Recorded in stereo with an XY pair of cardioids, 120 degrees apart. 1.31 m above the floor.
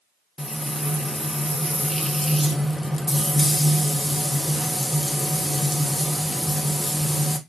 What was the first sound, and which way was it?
Frying, 5° left.